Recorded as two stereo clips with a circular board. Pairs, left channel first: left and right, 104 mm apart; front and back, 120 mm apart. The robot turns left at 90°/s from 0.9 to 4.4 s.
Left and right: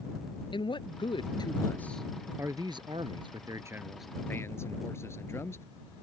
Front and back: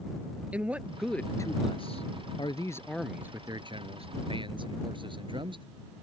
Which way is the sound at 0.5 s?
105° left.